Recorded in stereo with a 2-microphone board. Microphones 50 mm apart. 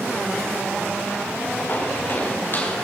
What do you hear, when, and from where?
1.7 s footsteps: 45° left (ahead or behind), 6 m; by 2.8 s 40° left (ahead or behind), 6.5 m